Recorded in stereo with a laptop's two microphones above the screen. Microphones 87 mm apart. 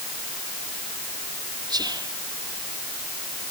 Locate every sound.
1.7 s whispering: 50° right (ahead or behind), 3 m